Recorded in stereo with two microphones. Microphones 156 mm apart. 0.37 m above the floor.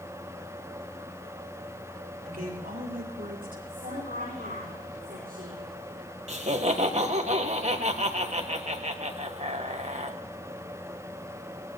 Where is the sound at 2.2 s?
75° right (ahead or behind), 5 m; by 3.6 s 65° right (ahead or behind), 4 m.